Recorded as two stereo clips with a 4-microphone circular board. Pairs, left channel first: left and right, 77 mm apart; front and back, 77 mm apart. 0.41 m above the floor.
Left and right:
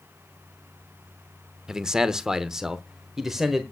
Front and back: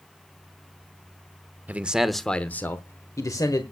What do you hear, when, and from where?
1.7 s a man speaking: 160° right, 0.8 m; by 3.6 s 5° right, 1.3 m